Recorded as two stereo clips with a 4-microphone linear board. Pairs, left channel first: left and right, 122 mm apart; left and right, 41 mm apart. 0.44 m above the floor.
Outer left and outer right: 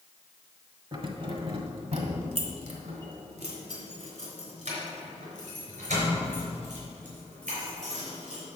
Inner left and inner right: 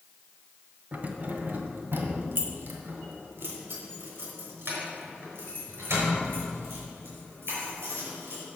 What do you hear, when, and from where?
0.9 s keys jangling: 45° right (ahead or behind), 1.3 m; by 8.4 s 85° right, 6.5 m